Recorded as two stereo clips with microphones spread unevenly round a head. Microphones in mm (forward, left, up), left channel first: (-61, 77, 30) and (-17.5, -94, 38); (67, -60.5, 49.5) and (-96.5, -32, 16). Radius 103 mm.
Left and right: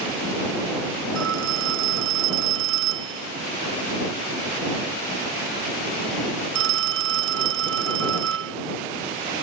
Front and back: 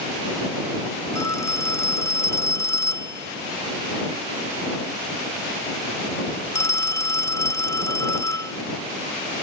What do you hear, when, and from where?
1.1 s a phone ringing: 80° right